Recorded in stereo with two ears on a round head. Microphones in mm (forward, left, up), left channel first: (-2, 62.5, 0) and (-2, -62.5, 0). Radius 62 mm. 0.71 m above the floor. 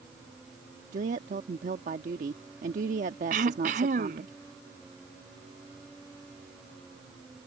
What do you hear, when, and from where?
0.9 s a woman speaking: 60° right (ahead or behind)
3.3 s throat clearing: 65° right (ahead or behind)